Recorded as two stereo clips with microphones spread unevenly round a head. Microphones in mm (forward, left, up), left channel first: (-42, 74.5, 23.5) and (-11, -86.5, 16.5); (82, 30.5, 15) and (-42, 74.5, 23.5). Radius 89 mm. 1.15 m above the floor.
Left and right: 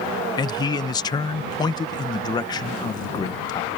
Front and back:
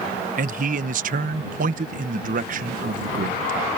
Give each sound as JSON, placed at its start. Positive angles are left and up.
{"t": 0.4, "sound": "a man speaking", "azimuth_deg": 165}